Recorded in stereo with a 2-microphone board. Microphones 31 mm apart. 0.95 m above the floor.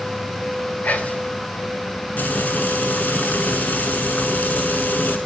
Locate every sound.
0.8 s whispering: 55° left (ahead or behind), 0.9 m
2.2 s frying: 75° left (ahead or behind), 1.3 m